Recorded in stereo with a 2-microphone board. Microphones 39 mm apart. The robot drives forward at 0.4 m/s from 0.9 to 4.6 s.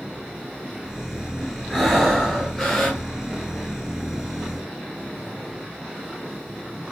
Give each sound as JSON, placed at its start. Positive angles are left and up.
{"t": 1.7, "sound": "breathing", "side_deg": 0, "distance_m": 1.4}